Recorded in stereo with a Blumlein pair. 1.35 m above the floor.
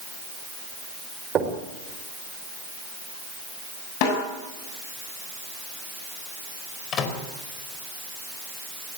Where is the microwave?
30° left, 4.5 m.